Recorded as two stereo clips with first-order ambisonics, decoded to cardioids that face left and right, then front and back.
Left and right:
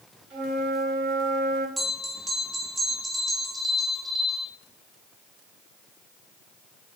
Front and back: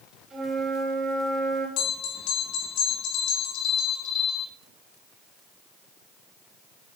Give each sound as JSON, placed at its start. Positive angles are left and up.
{"t": 0.3, "sound": "a flute", "azimuth_deg": -115, "distance_m": 3.5}
{"t": 1.8, "sound": "a bell", "azimuth_deg": -10, "distance_m": 4.0}